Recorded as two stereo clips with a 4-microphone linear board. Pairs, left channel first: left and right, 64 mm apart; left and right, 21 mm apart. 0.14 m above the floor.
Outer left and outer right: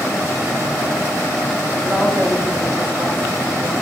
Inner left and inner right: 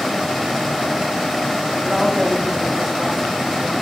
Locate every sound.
1.8 s a woman speaking: 25° right (ahead or behind), 7.5 m